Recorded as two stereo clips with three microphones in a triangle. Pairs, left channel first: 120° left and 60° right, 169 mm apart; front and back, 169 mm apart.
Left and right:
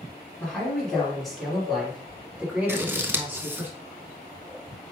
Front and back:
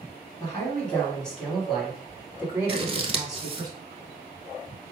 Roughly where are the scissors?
Behind right.